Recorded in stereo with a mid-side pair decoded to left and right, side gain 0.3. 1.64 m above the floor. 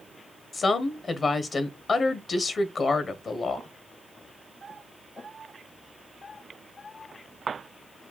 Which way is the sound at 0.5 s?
60° left.